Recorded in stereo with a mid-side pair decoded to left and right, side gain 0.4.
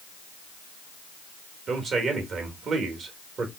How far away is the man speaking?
About 1.9 m.